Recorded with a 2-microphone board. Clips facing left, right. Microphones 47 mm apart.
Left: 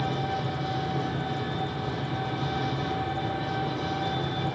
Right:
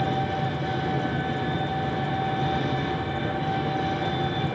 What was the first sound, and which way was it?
An engine running, 50° right (ahead or behind).